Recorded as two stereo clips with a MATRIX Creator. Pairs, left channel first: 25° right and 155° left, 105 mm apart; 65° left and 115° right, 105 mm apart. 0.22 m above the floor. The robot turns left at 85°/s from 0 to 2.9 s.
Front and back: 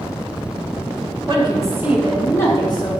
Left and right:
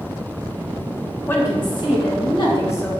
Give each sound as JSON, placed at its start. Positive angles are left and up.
{"t": 1.3, "sound": "a woman speaking", "azimuth_deg": 135, "distance_m": 2.5}